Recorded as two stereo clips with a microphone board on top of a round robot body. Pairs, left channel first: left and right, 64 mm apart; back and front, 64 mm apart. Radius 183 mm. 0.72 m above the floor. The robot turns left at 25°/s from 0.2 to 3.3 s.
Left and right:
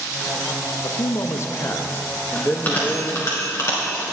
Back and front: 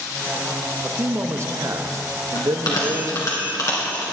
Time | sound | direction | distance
0.8 | a man speaking | 60° left | 0.8 m
2.4 | a bell | 160° left | 2.0 m